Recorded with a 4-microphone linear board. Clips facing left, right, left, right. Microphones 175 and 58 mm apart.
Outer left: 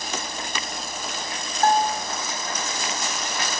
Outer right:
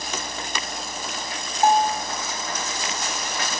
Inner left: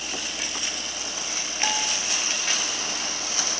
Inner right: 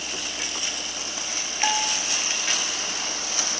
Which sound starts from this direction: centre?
A bell, at 1.6 s.